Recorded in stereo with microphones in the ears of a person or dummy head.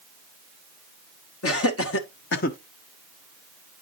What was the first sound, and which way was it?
Laughter, 70° left (ahead or behind).